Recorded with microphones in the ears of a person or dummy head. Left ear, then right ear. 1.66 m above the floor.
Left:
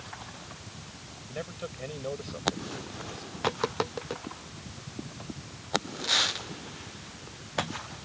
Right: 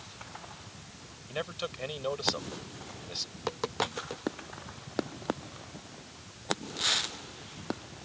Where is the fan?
5° left (ahead or behind).